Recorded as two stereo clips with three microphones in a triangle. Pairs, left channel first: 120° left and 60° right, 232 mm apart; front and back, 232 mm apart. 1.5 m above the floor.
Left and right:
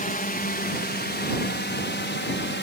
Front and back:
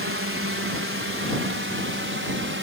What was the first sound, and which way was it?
A drone, 170° left.